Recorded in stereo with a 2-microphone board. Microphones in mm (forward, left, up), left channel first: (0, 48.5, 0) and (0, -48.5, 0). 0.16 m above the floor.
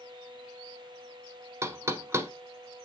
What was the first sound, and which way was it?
Knocking, 30° right (ahead or behind).